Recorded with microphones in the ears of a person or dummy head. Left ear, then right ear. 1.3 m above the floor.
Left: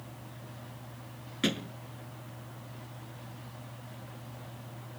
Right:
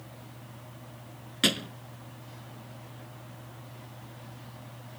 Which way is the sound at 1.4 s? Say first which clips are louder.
Right 6 dB; 25° right (ahead or behind).